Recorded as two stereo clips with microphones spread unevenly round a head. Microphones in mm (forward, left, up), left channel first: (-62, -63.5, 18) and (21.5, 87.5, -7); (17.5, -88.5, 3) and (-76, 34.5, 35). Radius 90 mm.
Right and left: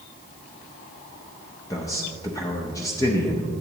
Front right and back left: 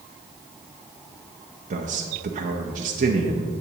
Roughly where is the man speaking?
Behind.